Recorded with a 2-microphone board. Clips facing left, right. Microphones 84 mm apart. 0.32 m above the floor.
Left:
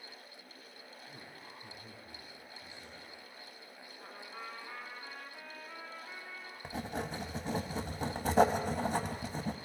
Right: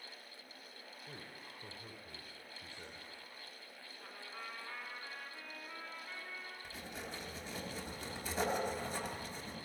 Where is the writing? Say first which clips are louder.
Left 12 dB; 60° left (ahead or behind), 0.9 m.